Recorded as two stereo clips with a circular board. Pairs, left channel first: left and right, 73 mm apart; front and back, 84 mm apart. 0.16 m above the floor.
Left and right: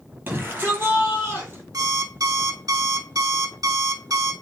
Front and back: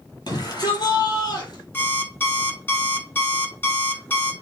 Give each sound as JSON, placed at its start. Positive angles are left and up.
{"t": 0.3, "sound": "a shout", "azimuth_deg": -25, "distance_m": 3.5}
{"t": 1.7, "sound": "an alarm clock", "azimuth_deg": -60, "distance_m": 1.0}